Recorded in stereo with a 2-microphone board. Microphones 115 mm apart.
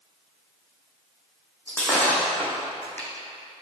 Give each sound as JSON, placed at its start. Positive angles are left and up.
{"t": 1.7, "sound": "breaking glass", "side_deg": 15, "distance_m": 3.5}